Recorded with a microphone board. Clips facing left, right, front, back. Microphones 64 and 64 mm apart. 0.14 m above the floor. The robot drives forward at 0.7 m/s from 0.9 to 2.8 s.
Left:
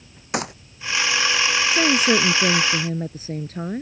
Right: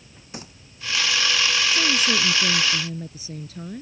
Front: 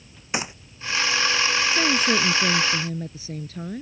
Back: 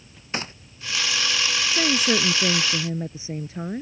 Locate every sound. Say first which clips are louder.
0.3 s a gunshot: left 14 dB, front 2 dB; 80° left
1.7 s a woman speaking: left 4 dB, back 2 dB; 95° left; by 3.8 s 120° left